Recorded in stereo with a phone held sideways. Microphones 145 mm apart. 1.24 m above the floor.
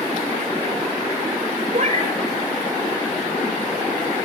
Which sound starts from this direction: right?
A cat meowing, at 1.7 s.